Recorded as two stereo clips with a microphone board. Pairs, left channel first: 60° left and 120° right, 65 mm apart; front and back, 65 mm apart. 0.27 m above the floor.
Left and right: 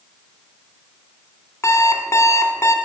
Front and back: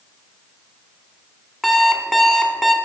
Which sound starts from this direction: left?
An alarm clock, at 1.6 s.